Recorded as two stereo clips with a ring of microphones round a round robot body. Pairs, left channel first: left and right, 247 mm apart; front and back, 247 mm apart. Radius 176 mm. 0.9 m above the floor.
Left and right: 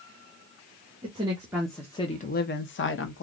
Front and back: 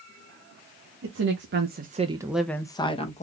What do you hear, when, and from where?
1.0 s a woman speaking: 155° right, 1.0 m; by 3.2 s 60° left, 1.1 m